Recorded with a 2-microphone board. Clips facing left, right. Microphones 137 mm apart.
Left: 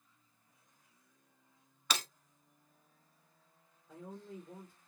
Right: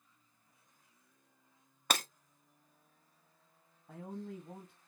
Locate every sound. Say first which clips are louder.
1.9 s breaking glass: right 3 dB; 50° right (ahead or behind), 0.6 m
3.9 s a man speaking: right 4 dB; 65° right (ahead or behind), 1.1 m